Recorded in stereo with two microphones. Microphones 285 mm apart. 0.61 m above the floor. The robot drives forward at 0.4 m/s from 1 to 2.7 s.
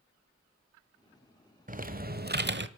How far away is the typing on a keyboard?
About 1.2 m.